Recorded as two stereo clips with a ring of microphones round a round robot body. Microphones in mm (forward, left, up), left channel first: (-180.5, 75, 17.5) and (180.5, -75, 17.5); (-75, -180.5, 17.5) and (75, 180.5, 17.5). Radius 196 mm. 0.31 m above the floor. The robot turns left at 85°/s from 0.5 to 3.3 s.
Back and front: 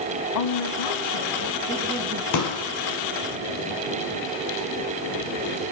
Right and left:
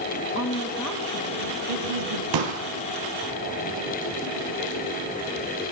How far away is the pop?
About 4.5 m.